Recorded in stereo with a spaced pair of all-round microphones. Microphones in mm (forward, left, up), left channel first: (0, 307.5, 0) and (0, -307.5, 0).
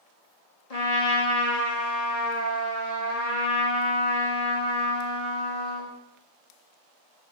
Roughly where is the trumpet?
Left.